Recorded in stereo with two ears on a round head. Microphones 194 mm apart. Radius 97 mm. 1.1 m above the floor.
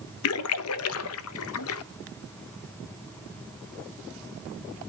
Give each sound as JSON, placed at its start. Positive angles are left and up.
{"t": 0.2, "sound": "a splash", "side_deg": 70, "distance_m": 0.6}